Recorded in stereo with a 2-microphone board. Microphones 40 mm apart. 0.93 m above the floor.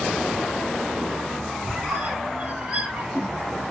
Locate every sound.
1.6 s a squeak: 30° right (ahead or behind), 3 m